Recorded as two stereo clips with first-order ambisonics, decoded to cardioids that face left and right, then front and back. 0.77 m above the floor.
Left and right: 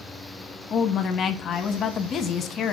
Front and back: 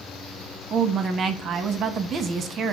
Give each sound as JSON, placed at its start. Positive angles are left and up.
{"t": 0.7, "sound": "a woman speaking", "azimuth_deg": 140, "distance_m": 0.8}